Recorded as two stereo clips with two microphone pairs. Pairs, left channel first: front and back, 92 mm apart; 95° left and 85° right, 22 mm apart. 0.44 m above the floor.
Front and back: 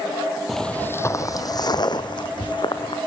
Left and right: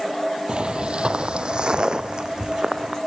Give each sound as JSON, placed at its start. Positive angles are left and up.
{"t": 0.5, "sound": "footsteps", "azimuth_deg": -90, "distance_m": 0.6}